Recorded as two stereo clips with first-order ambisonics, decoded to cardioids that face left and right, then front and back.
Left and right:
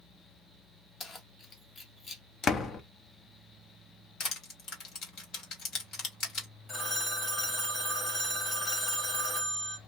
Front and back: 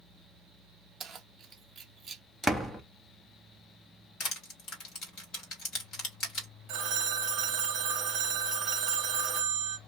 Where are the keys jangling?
135° left, 0.6 m.